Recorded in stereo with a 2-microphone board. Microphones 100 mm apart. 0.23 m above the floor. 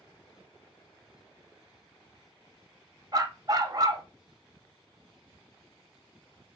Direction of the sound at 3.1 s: 35° right (ahead or behind).